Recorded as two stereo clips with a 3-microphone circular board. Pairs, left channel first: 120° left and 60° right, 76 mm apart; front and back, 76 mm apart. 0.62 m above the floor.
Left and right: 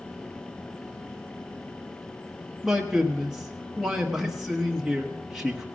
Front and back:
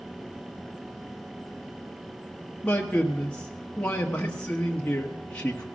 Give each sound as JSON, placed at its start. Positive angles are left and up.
{"t": 2.6, "sound": "a man speaking", "azimuth_deg": 5, "distance_m": 1.1}